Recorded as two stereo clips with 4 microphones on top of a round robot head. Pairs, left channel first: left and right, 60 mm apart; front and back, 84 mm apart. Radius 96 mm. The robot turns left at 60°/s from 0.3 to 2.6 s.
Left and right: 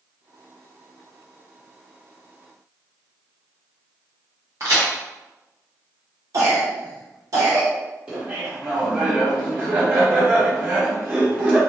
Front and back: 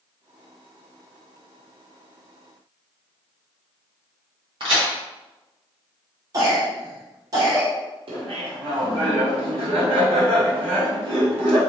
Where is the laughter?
165° right, 1.0 m.